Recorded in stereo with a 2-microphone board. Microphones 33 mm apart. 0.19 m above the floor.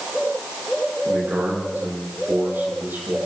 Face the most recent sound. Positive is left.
turn(degrees=-75)  # may be behind; listen again after turning